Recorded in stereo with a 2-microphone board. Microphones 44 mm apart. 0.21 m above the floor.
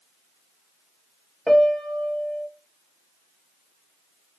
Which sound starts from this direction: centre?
A piano, at 1.5 s.